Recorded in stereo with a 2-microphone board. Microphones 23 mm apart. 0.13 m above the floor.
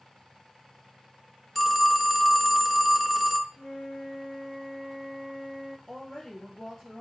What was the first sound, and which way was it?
A phone ringing, centre (ahead or behind).